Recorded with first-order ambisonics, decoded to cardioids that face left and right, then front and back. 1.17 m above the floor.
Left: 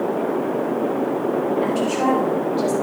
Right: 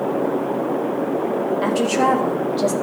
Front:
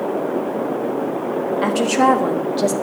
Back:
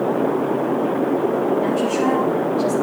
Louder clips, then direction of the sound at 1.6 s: Right 2 dB, front 3 dB; 20° right.